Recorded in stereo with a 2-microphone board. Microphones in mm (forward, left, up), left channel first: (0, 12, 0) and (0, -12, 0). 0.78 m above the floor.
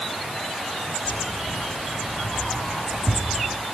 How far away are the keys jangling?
About 6 m.